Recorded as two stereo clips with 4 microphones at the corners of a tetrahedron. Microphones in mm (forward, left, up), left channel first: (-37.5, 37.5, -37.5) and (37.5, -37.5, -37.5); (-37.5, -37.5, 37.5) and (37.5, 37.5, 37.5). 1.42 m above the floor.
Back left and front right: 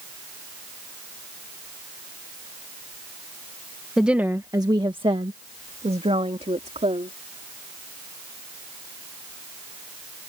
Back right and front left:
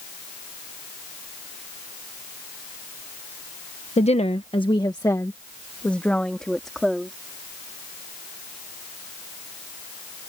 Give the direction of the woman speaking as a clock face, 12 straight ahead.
4 o'clock.